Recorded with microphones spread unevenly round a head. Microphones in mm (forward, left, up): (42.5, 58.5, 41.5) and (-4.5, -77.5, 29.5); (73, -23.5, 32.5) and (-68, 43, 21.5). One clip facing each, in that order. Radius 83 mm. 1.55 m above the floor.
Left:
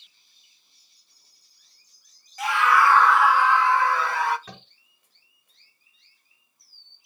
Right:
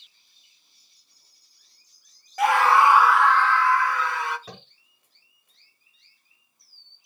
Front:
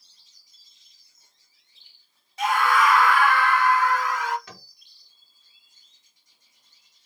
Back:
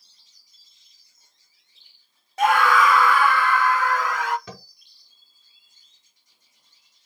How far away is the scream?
About 0.5 m.